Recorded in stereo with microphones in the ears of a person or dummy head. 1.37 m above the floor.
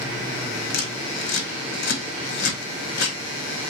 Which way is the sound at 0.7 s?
55° left (ahead or behind).